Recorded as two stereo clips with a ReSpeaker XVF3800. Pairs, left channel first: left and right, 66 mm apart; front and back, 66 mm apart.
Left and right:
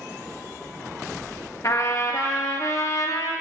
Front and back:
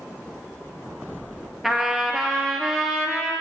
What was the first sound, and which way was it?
A trumpet, 95° left.